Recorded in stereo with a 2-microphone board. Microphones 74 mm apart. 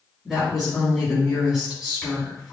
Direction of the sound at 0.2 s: Centre (ahead or behind).